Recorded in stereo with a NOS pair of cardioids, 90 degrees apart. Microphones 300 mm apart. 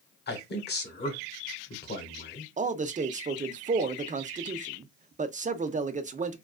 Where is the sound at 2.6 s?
25° right, 0.5 m.